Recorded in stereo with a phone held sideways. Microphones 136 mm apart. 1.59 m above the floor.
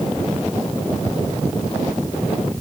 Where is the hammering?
No hammering in this recording.